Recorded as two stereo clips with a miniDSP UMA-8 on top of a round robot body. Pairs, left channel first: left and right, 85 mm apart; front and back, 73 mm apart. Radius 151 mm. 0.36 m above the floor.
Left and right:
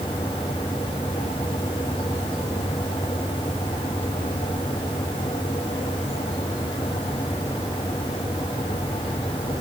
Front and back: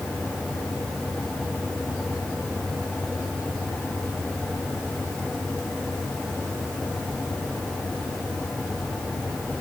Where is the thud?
No thud in this recording.